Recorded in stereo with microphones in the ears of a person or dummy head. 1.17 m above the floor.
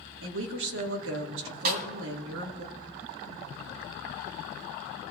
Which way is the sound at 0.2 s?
80° right.